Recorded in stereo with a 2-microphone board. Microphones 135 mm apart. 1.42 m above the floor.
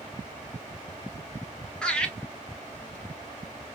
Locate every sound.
1.8 s laughter: 5° left (ahead or behind), 1.5 m